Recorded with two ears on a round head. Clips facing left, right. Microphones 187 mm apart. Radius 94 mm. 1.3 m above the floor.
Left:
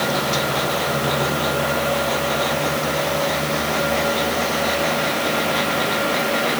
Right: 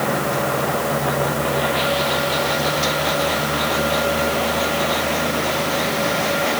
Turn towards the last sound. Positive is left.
No sound to turn to.